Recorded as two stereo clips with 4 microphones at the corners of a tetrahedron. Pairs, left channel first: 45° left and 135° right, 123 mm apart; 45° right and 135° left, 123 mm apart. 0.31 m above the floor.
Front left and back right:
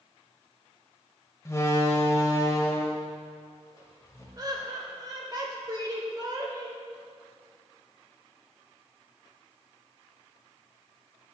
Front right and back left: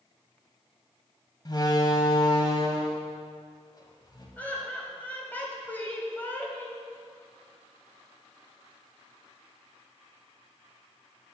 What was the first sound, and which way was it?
A door slam, 10° right.